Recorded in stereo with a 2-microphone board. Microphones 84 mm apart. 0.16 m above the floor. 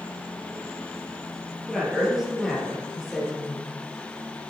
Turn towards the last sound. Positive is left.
turn(degrees=0)  # may be behind; listen again after turning